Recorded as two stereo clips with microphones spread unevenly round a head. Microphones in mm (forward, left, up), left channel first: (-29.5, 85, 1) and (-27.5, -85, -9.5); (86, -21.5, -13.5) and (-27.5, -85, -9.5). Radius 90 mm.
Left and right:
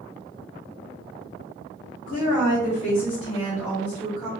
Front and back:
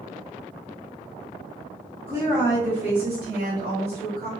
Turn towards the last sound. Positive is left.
turn(degrees=-175)